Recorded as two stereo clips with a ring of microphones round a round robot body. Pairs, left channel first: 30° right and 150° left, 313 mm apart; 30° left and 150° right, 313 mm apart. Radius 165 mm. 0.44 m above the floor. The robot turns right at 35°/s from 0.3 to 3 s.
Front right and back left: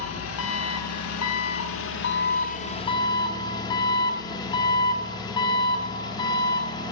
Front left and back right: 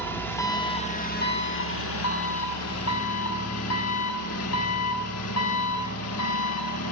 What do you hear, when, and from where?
0.0 s an engine running: 50° right, 1.2 m; by 6.9 s 45° left, 1.2 m